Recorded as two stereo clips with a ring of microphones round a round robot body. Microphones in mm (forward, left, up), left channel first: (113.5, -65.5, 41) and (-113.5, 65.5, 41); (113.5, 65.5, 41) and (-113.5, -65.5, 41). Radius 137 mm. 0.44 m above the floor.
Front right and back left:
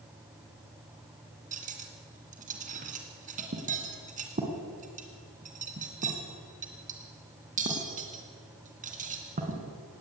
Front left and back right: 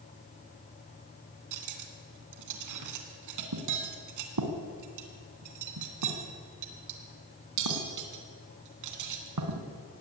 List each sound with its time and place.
1.5 s cutlery clinking: 150° right, 2.5 m